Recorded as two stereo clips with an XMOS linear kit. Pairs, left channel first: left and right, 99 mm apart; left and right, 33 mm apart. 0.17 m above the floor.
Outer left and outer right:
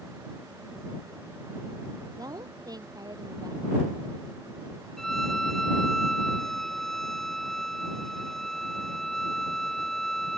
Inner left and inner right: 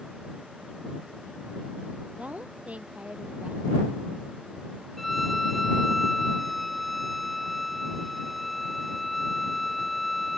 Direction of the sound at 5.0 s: 5° left (ahead or behind).